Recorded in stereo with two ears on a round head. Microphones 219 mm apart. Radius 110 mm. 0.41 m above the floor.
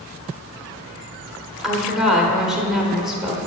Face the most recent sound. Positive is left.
turn(degrees=-5)  # may be behind; listen again after turning